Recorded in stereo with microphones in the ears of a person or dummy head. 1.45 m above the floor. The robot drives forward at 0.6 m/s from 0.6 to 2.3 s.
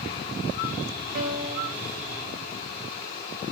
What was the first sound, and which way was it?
A piano, 45° right (ahead or behind).